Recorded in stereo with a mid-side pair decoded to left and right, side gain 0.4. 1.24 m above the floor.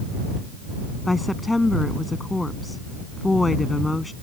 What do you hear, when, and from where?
1.1 s a woman speaking: 15° left